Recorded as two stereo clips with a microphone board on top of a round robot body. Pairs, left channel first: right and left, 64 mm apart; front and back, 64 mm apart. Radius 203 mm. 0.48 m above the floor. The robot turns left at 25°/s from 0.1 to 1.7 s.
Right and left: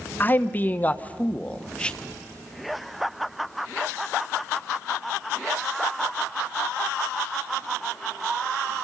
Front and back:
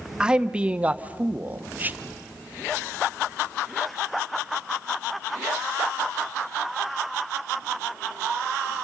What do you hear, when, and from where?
0.2 s a man speaking: 115° right, 1.3 m; by 2.0 s 150° right, 1.3 m